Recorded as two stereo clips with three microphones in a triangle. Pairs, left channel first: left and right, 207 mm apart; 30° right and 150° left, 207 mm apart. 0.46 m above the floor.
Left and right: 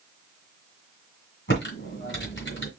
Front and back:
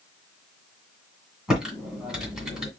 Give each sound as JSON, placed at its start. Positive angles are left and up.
{"t": 1.5, "sound": "typing on a keyboard", "azimuth_deg": 65, "distance_m": 2.0}